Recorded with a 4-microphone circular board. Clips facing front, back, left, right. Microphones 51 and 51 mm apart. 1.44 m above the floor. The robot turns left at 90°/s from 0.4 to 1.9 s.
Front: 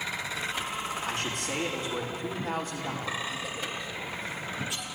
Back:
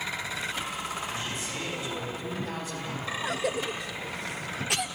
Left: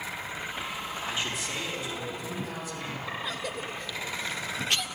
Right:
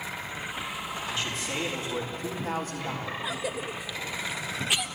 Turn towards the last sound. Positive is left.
turn(degrees=-175)